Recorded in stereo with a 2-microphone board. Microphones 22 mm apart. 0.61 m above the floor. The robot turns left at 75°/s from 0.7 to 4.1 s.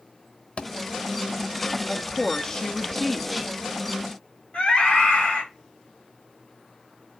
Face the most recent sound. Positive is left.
turn(degrees=50)  # may be behind; listen again after turning